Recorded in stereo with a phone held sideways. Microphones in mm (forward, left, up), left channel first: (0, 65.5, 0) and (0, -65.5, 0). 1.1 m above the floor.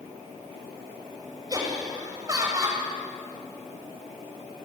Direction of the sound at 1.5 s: 25° right (ahead or behind).